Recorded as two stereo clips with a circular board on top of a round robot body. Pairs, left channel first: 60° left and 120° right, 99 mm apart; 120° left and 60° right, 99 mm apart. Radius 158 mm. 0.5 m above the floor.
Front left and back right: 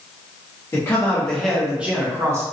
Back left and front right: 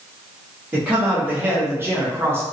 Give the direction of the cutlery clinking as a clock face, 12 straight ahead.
I don't hear cutlery clinking.